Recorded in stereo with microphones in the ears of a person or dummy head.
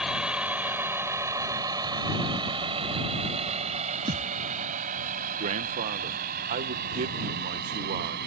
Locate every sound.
0.0 s a vehicle: 5° right (ahead or behind); by 8.3 s 55° right (ahead or behind)
4.1 s a thud: 15° right (ahead or behind)
5.4 s a man speaking: 30° right (ahead or behind)